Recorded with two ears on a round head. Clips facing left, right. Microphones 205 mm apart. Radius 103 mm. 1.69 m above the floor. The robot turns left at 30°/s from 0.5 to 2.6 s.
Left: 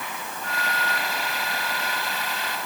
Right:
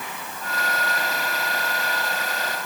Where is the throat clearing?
I don't hear throat clearing.